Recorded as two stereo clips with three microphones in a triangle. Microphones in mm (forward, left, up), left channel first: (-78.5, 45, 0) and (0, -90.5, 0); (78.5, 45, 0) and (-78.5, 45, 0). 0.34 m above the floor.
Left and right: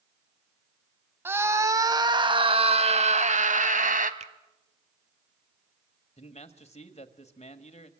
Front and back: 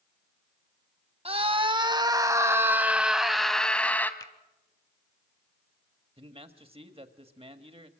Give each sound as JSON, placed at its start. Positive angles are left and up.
{"t": 1.2, "sound": "a scream", "azimuth_deg": -135, "distance_m": 2.0}
{"t": 4.2, "sound": "a finger snap", "azimuth_deg": -55, "distance_m": 1.0}
{"t": 6.2, "sound": "a man speaking", "azimuth_deg": 145, "distance_m": 1.7}